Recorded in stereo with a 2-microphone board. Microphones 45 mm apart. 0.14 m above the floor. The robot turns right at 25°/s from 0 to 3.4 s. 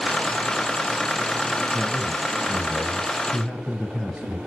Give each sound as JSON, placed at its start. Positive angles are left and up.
{"t": 1.7, "sound": "a man speaking", "azimuth_deg": -35, "distance_m": 3.5}